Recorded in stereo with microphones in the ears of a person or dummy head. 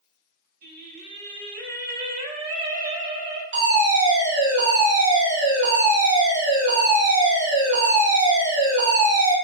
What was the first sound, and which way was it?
Singing, 45° right (ahead or behind).